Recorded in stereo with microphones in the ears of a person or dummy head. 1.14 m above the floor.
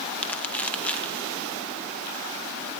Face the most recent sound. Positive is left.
turn(degrees=10)  # may be behind; listen again after turning